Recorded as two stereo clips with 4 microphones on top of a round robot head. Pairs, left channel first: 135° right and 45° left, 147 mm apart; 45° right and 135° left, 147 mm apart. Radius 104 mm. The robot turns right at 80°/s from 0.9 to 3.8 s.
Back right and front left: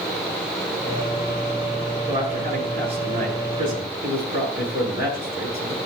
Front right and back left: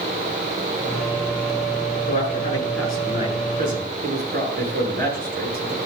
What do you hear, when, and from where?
2.1 s a man speaking: 25° right, 6.5 m; by 5.8 s 115° left, 6.5 m